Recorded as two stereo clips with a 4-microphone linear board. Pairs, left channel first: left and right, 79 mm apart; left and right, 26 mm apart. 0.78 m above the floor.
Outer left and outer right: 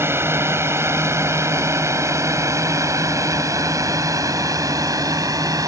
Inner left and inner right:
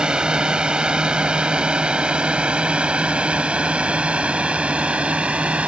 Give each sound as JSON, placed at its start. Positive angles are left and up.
{"t": 0.0, "sound": "a drone", "side_deg": -35}